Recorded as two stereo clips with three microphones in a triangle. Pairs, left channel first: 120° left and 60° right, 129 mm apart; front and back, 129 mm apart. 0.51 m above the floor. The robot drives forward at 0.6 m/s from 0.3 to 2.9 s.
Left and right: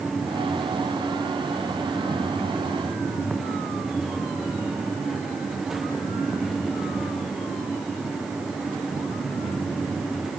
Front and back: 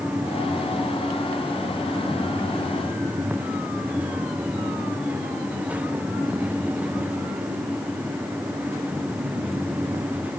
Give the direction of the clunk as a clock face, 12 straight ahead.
I don't hear a clunk.